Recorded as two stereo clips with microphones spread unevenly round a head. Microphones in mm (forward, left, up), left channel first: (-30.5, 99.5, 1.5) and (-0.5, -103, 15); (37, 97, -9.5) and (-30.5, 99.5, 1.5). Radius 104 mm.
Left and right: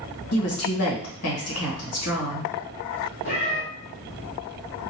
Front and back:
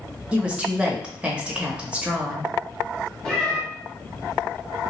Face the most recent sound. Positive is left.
turn(degrees=85)